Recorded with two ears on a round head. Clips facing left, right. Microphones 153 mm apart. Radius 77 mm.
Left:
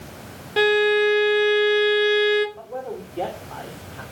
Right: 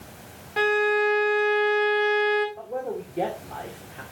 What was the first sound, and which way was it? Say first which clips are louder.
A violin: left 5 dB; 40° left (ahead or behind).